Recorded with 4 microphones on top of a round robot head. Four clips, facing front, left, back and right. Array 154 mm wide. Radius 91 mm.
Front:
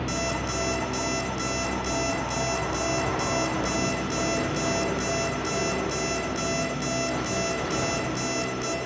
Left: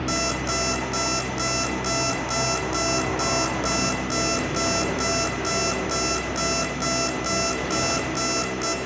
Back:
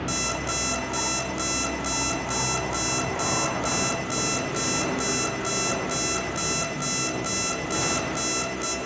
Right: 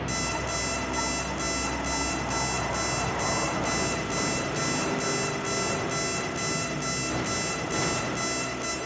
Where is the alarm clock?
130° left, 1.0 m.